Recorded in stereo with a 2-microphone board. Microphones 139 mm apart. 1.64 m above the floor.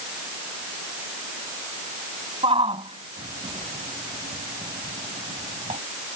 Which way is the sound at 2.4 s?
40° right (ahead or behind).